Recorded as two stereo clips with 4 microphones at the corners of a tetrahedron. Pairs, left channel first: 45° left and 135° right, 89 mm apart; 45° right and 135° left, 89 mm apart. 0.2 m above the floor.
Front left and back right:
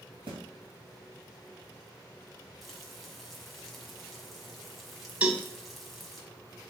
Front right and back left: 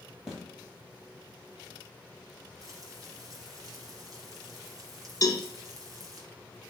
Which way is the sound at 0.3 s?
145° right.